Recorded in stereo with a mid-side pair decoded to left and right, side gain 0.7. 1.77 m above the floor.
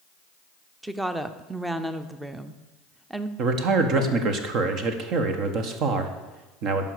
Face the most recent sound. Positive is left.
turn(degrees=-55)